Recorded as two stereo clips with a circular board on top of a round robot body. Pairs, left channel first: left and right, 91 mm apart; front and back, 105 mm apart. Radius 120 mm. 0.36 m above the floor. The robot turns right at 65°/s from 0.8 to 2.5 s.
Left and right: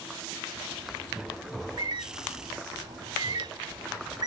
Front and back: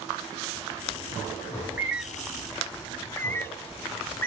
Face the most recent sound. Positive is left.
turn(degrees=-65)